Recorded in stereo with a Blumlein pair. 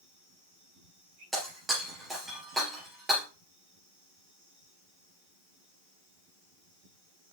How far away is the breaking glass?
About 3.5 m.